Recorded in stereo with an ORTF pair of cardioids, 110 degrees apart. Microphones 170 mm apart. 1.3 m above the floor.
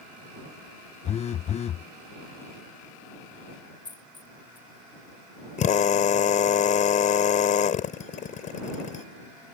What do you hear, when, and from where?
1.1 s a phone buzzing: 40° left
3.9 s a dropped coin: 25° left
5.6 s a drill: 50° left